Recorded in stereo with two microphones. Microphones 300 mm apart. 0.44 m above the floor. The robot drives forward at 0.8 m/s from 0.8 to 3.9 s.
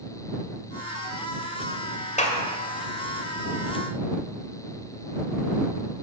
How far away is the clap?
About 1.7 m.